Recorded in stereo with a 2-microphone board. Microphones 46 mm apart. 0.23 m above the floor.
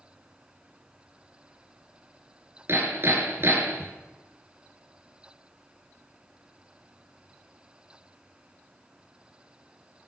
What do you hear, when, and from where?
2.7 s hammering: 55° right (ahead or behind), 2.5 m